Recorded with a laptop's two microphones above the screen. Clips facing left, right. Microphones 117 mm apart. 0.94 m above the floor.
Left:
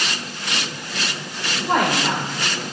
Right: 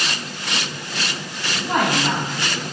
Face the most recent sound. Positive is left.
turn(degrees=65)  # may be behind; listen again after turning